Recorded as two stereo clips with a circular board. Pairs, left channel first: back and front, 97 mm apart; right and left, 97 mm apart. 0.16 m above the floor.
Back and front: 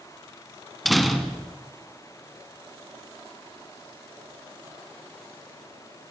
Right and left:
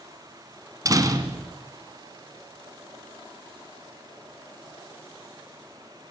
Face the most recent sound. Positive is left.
turn(degrees=95)